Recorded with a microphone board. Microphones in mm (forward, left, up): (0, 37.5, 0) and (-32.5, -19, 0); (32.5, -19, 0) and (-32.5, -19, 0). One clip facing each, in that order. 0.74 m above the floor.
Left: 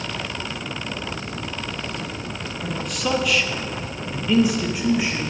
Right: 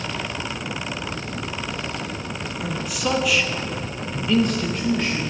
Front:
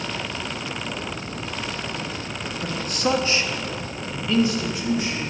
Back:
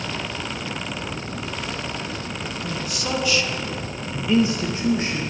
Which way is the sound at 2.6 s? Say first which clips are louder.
Even, front 6 dB; 35° right.